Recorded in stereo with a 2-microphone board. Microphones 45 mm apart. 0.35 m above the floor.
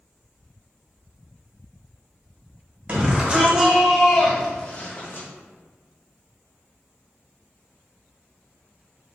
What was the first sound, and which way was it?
A shout, 35° right (ahead or behind).